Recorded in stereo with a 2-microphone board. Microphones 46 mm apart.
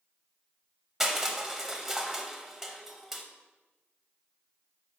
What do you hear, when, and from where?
1.0 s crushing: 10° right (ahead or behind), 0.8 m